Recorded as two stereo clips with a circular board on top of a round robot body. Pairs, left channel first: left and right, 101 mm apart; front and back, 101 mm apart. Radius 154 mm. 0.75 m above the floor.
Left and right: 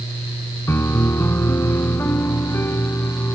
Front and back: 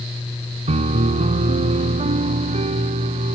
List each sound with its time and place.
0.7 s a piano: 160° left